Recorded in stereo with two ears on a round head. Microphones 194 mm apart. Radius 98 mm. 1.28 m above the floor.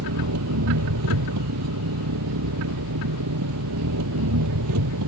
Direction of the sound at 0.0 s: 90° right.